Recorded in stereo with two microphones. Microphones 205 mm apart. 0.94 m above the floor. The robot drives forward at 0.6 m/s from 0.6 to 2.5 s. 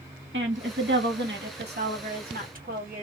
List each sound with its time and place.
0.3 s a woman speaking: 65° right (ahead or behind), 1.4 m; by 3.0 s 45° right (ahead or behind), 1.9 m